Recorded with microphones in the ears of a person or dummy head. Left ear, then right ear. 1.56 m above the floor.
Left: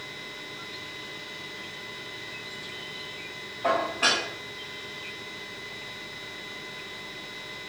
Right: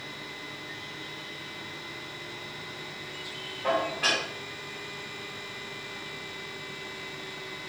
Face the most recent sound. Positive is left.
turn(degrees=40)  # may be behind; listen again after turning